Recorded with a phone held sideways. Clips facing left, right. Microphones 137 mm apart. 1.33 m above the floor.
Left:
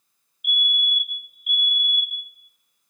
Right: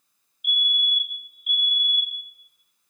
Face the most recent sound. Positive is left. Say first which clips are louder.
# left 2 dB
turn(degrees=0)  # may be behind; listen again after turning